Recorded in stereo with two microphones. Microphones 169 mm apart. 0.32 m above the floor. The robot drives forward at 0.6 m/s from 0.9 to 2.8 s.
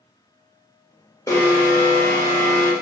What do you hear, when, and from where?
1.3 s an alarm: 20° left (ahead or behind), 0.6 m; by 2.7 s 15° left (ahead or behind), 1.0 m